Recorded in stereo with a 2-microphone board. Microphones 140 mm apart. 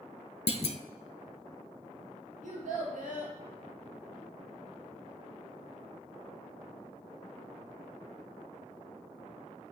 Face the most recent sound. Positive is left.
turn(degrees=-65)  # may be behind; listen again after turning